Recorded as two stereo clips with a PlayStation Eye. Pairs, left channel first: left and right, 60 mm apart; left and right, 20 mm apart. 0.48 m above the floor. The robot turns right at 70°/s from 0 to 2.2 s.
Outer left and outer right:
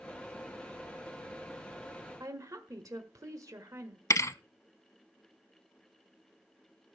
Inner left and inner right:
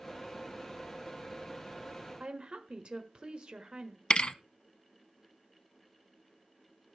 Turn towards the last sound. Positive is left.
turn(degrees=50)  # may be behind; listen again after turning